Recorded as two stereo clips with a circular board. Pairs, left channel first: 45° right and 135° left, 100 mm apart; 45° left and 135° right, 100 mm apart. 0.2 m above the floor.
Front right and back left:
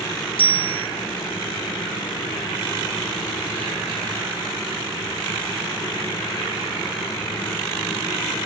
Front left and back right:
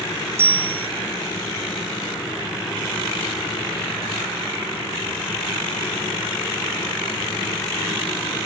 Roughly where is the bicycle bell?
Right.